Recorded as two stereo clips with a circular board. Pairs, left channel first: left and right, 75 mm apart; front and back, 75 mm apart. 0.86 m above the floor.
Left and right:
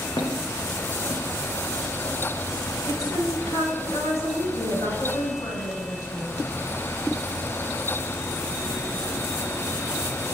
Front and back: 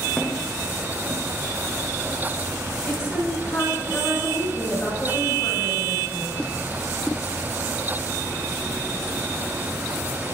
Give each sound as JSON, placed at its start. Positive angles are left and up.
{"t": 0.2, "sound": "footsteps", "azimuth_deg": 80, "distance_m": 4.5}
{"t": 2.9, "sound": "a woman speaking", "azimuth_deg": 50, "distance_m": 8.0}